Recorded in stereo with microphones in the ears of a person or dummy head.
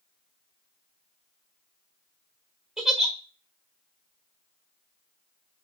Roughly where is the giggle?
Centre.